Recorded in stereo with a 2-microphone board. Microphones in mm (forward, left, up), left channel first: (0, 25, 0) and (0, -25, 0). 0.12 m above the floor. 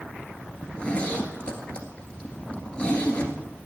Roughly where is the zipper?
Left.